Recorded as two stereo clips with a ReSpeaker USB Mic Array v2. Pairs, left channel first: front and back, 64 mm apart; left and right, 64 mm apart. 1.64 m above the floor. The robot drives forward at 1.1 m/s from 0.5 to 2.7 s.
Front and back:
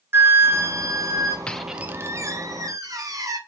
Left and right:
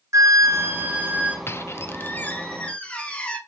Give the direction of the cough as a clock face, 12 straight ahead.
I don't hear a cough.